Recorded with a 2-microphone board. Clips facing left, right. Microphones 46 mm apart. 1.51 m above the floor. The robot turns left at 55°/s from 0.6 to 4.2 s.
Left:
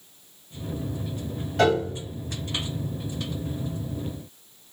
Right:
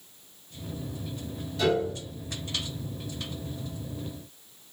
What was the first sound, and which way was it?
A piano, 50° left (ahead or behind).